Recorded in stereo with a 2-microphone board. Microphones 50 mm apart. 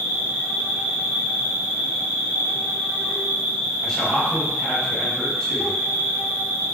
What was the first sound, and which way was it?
An insect, 25° right (ahead or behind).